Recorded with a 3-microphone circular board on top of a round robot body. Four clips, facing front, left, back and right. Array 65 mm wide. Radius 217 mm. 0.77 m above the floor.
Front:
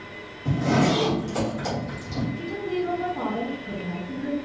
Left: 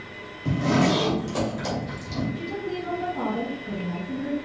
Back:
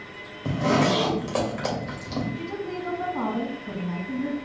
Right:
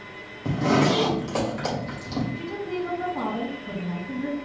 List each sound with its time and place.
0.5 s a zipper: 150° right, 1.9 m
2.4 s a woman speaking: 160° right, 2.0 m